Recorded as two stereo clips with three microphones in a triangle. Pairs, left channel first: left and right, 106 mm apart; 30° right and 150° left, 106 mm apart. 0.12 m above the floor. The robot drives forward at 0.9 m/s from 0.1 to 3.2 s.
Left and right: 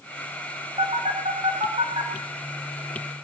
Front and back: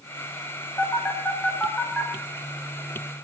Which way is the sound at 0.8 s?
95° right.